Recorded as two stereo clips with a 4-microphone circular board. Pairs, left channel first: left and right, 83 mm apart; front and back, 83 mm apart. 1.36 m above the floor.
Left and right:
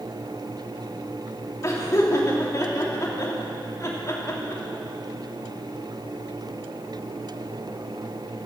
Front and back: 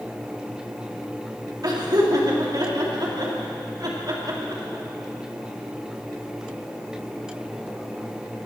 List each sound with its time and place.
1.6 s laughter: 140° left, 3 m